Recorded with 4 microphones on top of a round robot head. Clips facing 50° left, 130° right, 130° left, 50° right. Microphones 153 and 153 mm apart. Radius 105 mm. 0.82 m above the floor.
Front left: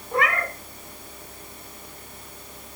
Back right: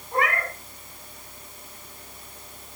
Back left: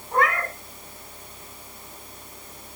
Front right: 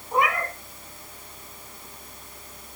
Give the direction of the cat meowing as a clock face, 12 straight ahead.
11 o'clock.